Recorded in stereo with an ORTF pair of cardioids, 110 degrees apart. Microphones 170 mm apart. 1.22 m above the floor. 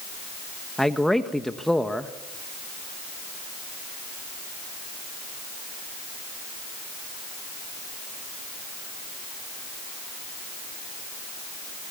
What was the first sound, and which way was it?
A man speaking, straight ahead.